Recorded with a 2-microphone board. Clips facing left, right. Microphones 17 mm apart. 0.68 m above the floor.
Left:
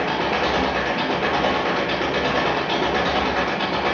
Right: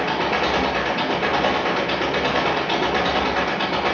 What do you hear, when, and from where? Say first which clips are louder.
0.0 s an engine running: even; 15° right (ahead or behind), 1.1 m